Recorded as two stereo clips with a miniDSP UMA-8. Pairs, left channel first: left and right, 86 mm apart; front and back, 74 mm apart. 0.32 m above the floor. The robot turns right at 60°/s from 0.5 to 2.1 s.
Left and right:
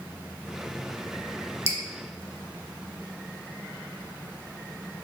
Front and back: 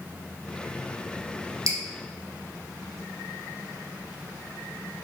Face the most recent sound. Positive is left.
turn(degrees=-115)